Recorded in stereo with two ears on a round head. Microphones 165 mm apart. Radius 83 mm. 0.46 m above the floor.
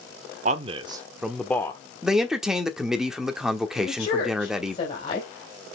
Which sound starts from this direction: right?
A man speaking, at 0.5 s.